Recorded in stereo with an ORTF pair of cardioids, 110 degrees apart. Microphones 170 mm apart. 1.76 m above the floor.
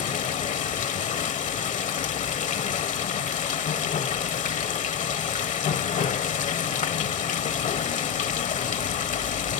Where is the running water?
50° left, 1.1 m.